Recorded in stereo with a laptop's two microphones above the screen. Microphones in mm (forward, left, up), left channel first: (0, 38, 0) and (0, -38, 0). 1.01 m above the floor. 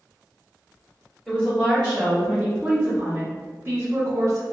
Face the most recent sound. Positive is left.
turn(degrees=-45)  # may be behind; listen again after turning